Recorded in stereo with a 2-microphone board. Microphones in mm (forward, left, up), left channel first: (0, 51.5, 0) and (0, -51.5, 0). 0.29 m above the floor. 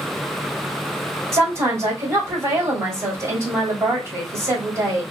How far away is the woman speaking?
About 1.5 m.